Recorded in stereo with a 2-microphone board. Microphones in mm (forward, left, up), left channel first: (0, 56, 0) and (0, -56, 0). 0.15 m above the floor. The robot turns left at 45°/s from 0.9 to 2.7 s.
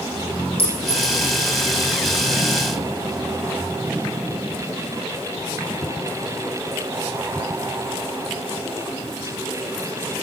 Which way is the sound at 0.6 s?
60° left (ahead or behind).